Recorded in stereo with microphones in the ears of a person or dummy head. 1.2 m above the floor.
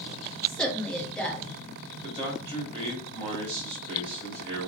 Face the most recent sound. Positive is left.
turn(degrees=-30)  # may be behind; listen again after turning